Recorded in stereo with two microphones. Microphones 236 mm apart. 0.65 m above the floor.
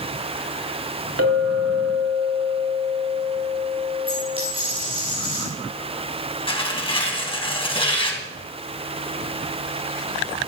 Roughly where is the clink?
Right.